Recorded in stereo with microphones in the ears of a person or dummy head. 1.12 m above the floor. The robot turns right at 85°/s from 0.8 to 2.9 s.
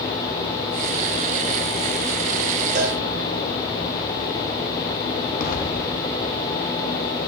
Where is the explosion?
50° left (ahead or behind), 0.9 m.